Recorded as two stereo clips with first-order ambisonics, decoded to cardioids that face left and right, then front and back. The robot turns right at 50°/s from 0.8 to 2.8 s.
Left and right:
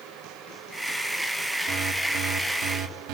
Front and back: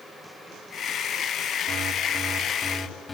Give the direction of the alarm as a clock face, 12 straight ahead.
4 o'clock.